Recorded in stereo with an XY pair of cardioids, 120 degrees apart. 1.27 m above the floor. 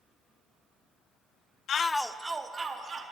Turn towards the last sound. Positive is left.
turn(degrees=-35)